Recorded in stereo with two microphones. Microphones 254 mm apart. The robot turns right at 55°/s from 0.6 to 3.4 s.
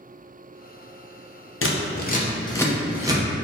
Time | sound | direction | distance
1.6 | scissors | 55° left (ahead or behind) | 0.6 m